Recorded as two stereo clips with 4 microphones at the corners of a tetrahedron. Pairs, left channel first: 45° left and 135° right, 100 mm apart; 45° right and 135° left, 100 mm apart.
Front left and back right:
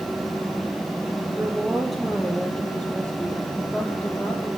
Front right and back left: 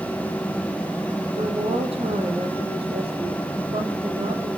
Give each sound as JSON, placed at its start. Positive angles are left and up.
{"t": 1.4, "sound": "a woman speaking", "azimuth_deg": 140, "distance_m": 5.0}